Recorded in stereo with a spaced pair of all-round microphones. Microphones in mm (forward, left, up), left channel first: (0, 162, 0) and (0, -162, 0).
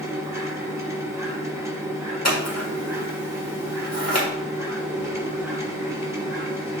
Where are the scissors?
50° left (ahead or behind), 2 m.